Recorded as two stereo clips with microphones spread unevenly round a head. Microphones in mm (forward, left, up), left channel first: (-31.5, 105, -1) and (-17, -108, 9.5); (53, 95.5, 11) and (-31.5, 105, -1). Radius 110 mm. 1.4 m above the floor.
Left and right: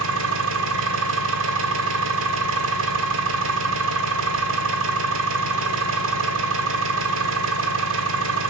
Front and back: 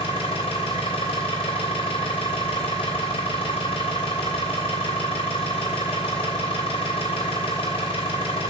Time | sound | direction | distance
0.0 | an engine running | 50° right | 1.4 m